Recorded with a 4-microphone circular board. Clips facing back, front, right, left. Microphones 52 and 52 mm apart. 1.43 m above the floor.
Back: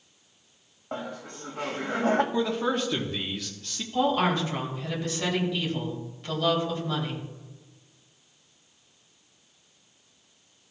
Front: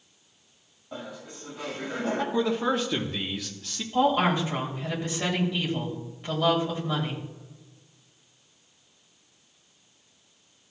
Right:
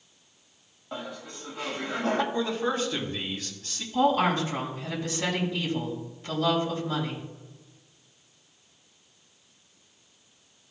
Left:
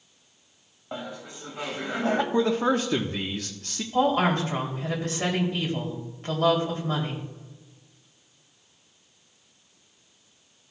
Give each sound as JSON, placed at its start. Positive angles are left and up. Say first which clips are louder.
{"t": 0.9, "sound": "laughter", "louder": "back 4 dB, left 1 dB", "azimuth_deg": 155, "distance_m": 1.8}
{"t": 2.3, "sound": "a man speaking", "louder": "front 1 dB, left 5 dB", "azimuth_deg": 85, "distance_m": 1.0}
{"t": 3.9, "sound": "a woman speaking", "louder": "front 2 dB, left 1 dB", "azimuth_deg": 70, "distance_m": 3.0}